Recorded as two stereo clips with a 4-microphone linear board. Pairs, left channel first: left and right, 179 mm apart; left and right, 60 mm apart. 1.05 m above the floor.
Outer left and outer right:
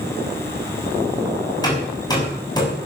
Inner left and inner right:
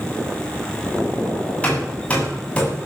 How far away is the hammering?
About 7 m.